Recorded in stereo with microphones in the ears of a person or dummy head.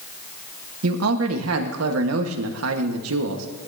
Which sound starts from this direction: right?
A man speaking, at 0.8 s.